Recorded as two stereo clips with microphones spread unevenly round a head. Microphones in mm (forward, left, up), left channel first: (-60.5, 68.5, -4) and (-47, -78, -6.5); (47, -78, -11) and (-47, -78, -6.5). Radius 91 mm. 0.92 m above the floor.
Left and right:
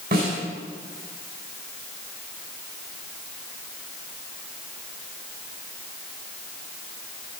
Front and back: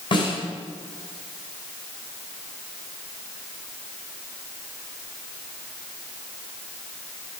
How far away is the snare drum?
About 6 m.